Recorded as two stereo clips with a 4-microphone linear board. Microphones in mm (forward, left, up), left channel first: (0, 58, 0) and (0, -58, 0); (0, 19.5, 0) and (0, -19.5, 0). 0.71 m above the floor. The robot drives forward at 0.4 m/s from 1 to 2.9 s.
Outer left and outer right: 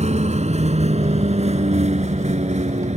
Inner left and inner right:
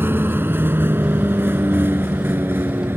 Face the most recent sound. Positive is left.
turn(degrees=-70)  # may be behind; listen again after turning